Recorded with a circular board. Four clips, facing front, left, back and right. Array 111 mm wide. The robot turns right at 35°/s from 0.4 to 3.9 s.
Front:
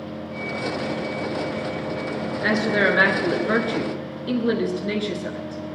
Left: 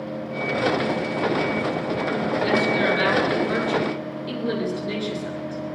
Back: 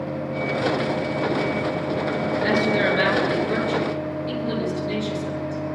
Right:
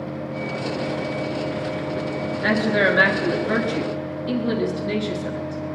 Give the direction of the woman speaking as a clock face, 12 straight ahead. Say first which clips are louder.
Right 3 dB, front 1 dB; 2 o'clock.